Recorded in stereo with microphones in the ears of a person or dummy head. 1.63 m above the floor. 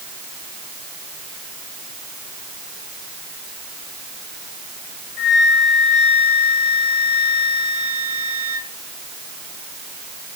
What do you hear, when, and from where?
5.2 s a flute: 50° left (ahead or behind), 3.5 m